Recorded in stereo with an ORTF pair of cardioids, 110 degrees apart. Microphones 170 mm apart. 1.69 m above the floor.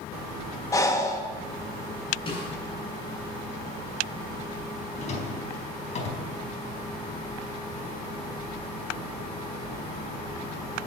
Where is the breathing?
20° left, 1.8 m.